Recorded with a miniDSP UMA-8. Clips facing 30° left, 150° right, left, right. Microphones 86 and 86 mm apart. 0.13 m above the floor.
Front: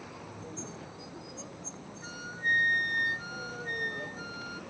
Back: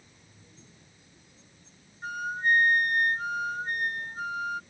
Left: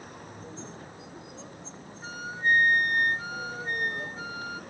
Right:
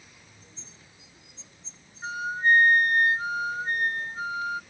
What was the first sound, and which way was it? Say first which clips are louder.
A vehicle: front 15 dB, left 12 dB; 45° left.